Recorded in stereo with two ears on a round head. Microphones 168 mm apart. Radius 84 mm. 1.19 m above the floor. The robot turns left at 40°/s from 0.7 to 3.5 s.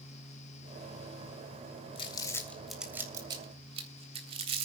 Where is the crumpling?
30° left (ahead or behind), 3 m; by 4.7 s 30° right (ahead or behind), 3 m.